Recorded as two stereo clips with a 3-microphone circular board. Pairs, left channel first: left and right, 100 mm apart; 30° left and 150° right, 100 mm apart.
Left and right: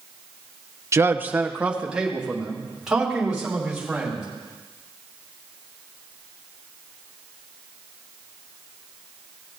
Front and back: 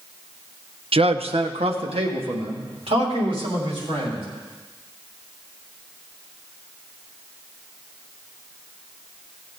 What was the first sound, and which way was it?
A man speaking, 150° right.